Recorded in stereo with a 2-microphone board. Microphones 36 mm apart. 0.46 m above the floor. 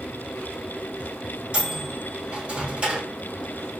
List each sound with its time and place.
1.5 s a microwave: 35° right (ahead or behind), 1.1 m